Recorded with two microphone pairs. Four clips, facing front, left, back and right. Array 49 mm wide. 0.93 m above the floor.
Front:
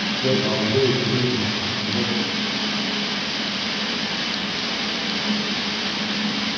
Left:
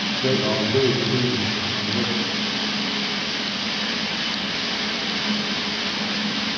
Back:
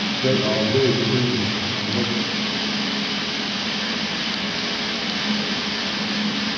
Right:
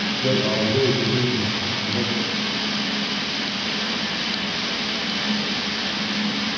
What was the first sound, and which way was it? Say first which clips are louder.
A man speaking: even, back 2 dB; 125° left.